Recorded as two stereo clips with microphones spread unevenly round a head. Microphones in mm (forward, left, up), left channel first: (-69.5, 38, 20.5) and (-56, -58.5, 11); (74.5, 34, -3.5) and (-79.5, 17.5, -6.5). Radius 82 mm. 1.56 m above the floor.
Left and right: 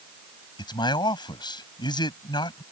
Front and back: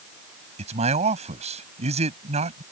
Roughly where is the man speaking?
Behind left.